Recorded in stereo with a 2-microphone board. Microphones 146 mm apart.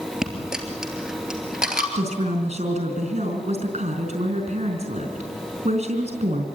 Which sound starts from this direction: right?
A woman speaking, at 1.9 s.